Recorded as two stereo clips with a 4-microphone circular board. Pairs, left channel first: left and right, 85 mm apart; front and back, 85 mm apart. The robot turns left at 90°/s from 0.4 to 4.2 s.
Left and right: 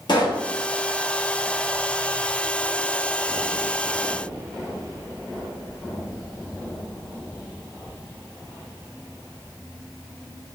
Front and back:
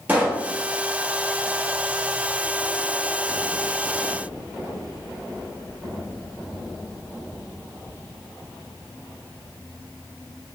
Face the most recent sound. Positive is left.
turn(degrees=130)